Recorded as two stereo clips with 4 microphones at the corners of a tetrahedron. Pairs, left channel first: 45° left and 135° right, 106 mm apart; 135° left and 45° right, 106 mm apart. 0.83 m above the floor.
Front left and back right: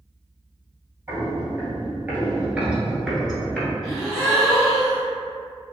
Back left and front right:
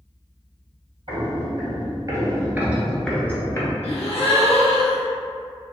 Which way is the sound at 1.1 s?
70° right.